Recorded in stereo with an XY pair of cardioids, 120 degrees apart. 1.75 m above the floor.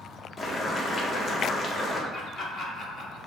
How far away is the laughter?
About 0.9 m.